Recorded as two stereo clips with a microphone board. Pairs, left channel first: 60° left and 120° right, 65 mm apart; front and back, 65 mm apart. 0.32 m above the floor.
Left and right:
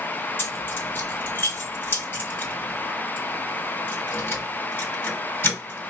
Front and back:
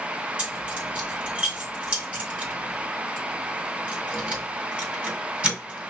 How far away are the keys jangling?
About 1.9 m.